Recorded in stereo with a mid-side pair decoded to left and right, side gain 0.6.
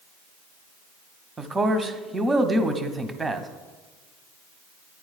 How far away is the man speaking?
About 0.6 m.